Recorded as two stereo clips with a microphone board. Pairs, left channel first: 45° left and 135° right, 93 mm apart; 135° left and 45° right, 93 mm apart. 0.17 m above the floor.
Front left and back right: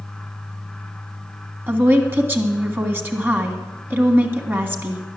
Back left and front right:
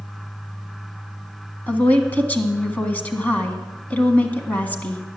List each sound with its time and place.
1.7 s a woman speaking: 175° right, 1.7 m